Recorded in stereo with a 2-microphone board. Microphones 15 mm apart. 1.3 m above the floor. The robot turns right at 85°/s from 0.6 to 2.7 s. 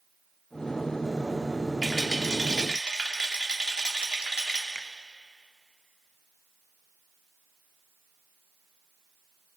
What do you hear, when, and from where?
1.8 s a rattle: 165° right, 3.5 m; by 4.7 s 90° right, 3.5 m
4.8 s a finger snap: 55° left (ahead or behind), 0.8 m